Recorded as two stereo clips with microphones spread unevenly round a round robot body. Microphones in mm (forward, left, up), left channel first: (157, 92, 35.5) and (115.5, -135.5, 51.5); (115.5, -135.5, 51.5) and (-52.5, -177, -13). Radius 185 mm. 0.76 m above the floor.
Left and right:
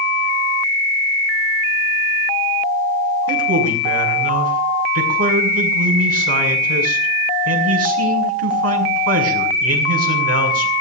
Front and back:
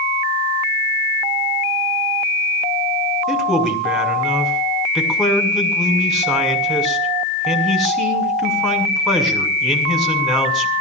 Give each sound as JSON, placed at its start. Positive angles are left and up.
{"t": 3.3, "sound": "a man speaking", "azimuth_deg": -80, "distance_m": 7.0}